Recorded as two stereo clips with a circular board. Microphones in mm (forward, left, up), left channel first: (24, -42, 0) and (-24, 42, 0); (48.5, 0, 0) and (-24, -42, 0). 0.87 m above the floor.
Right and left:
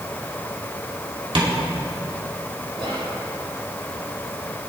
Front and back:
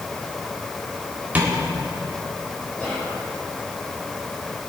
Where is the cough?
I don't hear a cough.